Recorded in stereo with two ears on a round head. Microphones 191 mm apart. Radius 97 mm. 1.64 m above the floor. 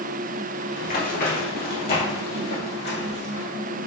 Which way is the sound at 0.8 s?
40° left (ahead or behind).